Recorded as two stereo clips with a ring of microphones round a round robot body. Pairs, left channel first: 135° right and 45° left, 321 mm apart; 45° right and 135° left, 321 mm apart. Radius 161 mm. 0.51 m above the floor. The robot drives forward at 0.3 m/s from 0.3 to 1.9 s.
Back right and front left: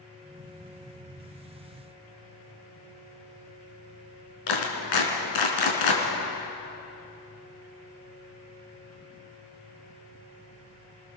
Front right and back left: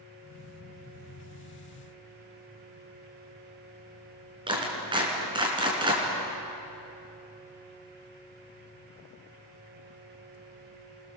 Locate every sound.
4.5 s a clap: 150° right, 5 m